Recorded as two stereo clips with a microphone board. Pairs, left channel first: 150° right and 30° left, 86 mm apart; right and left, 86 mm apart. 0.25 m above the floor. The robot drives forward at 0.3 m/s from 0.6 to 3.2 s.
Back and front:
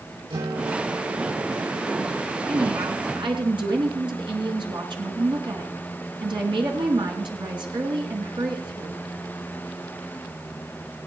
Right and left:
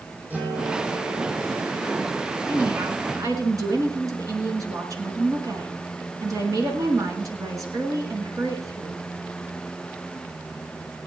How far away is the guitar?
About 4.5 m.